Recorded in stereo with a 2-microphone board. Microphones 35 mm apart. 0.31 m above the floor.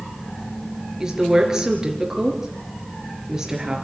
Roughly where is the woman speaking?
Centre.